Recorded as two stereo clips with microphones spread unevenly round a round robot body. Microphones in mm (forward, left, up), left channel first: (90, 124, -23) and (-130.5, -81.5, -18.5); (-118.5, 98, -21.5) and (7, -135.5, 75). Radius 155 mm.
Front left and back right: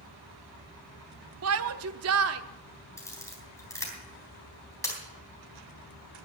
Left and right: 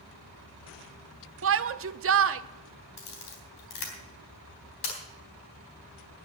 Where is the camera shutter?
125° left, 3.5 m.